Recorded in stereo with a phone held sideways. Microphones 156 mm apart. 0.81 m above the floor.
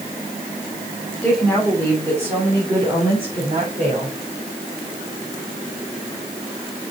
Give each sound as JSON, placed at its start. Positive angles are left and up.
{"t": 1.2, "sound": "a woman speaking", "side_deg": -5, "distance_m": 3.0}